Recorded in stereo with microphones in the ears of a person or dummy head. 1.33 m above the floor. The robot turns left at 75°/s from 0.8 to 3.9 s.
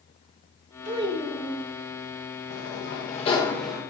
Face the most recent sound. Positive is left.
turn(degrees=-20)